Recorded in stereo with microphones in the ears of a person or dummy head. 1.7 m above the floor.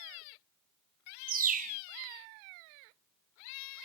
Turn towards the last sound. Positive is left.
turn(degrees=-45)  # may be behind; listen again after turning